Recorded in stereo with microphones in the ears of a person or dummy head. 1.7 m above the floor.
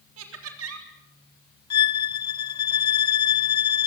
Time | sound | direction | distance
0.2 | laughter | 85° right | 4 m
1.7 | a violin | 25° left (ahead or behind) | 0.6 m